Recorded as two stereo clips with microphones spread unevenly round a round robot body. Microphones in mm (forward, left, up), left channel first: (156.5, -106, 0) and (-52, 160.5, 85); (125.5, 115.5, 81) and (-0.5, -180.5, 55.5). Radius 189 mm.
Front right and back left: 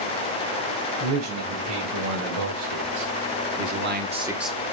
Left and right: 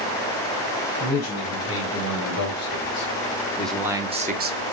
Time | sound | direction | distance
1.0 | a man speaking | 115° left | 4 m